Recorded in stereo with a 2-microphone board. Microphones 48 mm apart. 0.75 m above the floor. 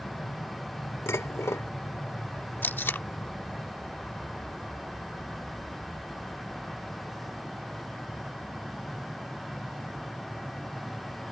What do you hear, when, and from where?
0.0 s an aircraft: 30° left (ahead or behind); by 11.3 s 50° right (ahead or behind)
1.1 s dishes clattering: 70° left (ahead or behind)
2.6 s tape being pulled: 45° left (ahead or behind)